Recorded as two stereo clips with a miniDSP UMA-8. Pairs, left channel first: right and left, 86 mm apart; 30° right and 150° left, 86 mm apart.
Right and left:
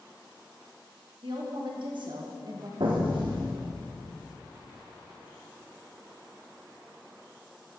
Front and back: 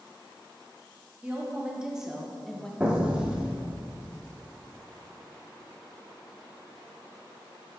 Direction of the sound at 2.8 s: 75° left.